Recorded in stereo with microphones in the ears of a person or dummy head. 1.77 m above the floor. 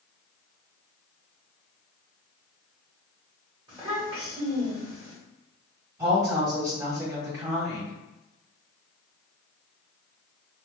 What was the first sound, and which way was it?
A child speaking, 20° right (ahead or behind).